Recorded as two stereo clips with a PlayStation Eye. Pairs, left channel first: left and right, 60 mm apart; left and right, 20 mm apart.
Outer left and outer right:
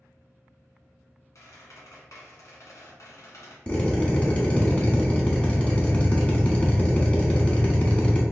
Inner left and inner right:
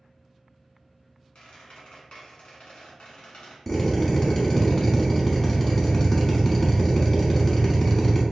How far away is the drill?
About 1.0 m.